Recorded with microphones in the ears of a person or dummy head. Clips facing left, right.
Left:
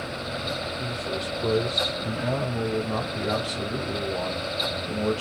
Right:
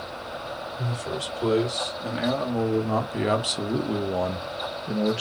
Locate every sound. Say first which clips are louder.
0.8 s a man speaking: left 1 dB; 75° right (ahead or behind), 3 m; by 5.2 s 15° right (ahead or behind), 1.0 m